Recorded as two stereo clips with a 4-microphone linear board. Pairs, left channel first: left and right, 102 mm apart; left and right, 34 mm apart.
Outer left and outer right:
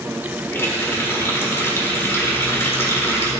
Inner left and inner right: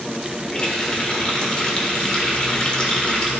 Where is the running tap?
20° left (ahead or behind), 1.3 m.